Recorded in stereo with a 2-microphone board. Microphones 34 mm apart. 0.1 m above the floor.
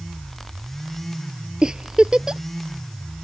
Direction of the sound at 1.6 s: 25° right (ahead or behind).